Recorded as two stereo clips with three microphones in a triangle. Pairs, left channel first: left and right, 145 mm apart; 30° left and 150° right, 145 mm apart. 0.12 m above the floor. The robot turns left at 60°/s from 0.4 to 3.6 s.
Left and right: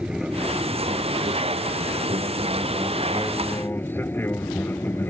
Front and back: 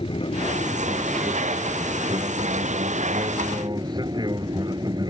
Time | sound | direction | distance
0.0 | an aircraft | 5° right | ?